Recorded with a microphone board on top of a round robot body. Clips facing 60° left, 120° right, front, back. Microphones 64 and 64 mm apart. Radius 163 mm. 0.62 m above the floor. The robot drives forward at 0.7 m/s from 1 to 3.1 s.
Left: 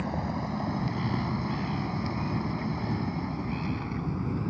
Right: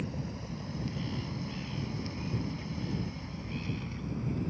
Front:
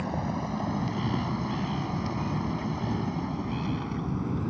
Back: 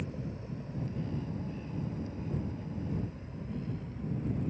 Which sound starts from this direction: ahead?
A vehicle, at 0.0 s.